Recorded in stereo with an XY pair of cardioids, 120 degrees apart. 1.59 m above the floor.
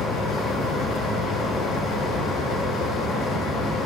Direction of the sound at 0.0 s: 65° left.